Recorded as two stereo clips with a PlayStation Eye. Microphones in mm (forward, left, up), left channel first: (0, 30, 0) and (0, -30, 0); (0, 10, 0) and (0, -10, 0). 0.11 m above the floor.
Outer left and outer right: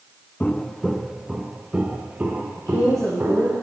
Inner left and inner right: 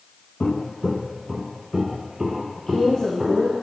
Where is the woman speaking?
55° left (ahead or behind), 2.5 m.